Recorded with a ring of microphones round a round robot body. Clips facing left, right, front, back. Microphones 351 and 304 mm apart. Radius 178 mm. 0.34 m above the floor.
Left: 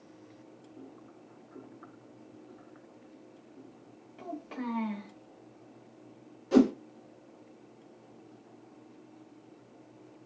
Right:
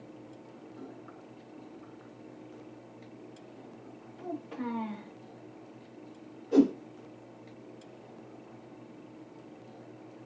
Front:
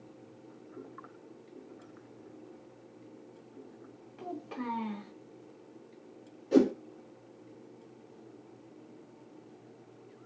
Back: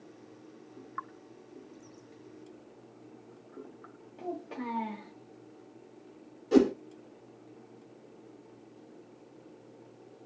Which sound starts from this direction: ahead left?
A child speaking, at 4.2 s.